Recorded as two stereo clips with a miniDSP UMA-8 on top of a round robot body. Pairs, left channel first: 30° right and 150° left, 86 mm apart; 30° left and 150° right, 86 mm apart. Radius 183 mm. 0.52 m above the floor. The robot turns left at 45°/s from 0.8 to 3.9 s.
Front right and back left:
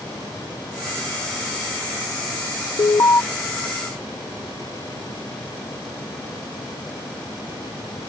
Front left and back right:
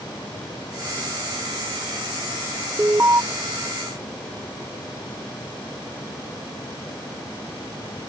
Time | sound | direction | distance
2.8 | an alarm | 75° right | ?